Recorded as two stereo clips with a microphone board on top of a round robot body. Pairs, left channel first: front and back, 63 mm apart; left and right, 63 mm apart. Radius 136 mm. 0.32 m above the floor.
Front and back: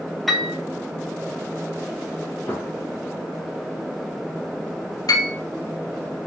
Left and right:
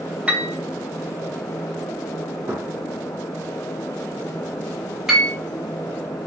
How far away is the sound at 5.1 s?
About 1.5 m.